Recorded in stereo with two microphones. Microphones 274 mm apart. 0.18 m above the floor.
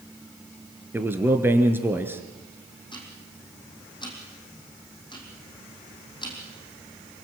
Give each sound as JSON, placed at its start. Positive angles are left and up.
{"t": 0.9, "sound": "a man speaking", "side_deg": -10, "distance_m": 2.5}
{"t": 2.9, "sound": "ticking", "side_deg": 15, "distance_m": 5.0}